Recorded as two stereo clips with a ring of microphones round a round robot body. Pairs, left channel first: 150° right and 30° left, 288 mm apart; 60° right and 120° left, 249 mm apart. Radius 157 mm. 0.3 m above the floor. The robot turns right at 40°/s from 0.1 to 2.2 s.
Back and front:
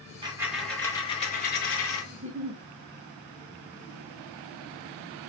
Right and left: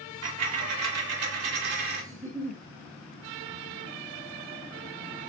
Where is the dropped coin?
105° left, 1.0 m; by 2.0 s 175° left, 1.0 m.